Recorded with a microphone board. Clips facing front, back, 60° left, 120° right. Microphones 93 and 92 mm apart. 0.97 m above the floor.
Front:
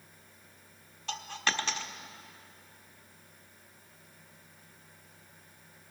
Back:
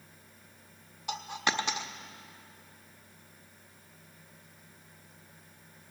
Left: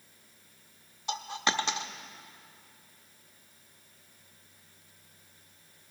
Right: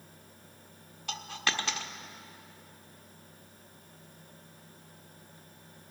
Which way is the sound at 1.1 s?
115° left.